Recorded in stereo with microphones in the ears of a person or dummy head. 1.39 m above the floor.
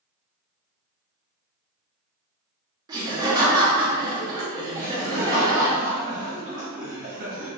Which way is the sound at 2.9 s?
20° right (ahead or behind).